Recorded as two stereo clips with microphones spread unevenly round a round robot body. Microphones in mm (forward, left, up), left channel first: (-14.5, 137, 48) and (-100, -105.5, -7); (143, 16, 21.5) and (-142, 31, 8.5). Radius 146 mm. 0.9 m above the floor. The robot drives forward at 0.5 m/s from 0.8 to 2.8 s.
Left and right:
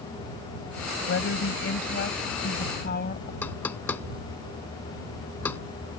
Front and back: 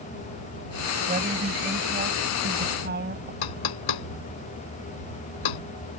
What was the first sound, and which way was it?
A woman speaking, 115° left.